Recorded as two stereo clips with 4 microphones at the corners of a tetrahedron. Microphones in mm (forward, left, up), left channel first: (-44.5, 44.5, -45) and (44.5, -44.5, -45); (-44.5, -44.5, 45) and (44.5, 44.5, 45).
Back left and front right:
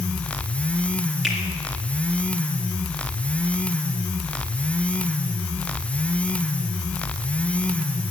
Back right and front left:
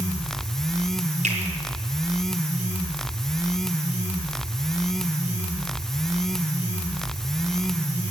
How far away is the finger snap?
About 4 m.